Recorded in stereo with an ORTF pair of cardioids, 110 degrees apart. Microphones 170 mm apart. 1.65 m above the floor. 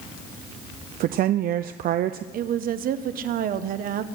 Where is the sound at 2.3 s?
60° right, 1.0 m.